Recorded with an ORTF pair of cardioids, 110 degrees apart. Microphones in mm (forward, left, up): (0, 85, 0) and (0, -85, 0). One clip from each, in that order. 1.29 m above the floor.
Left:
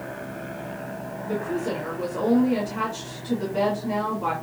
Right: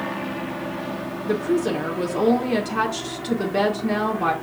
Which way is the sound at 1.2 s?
60° right.